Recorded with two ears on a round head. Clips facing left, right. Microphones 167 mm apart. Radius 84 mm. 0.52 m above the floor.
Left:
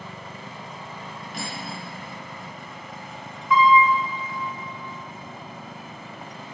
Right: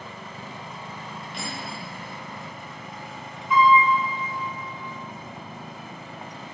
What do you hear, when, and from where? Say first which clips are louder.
1.3 s cutlery clinking: left 1 dB; 40° left (ahead or behind), 2 m
3.5 s a piano: even; 75° left (ahead or behind), 1.8 m